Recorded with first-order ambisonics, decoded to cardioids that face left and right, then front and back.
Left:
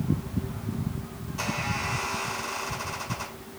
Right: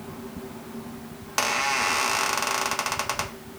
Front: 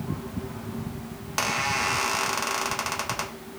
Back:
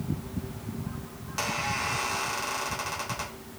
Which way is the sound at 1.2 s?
65° right.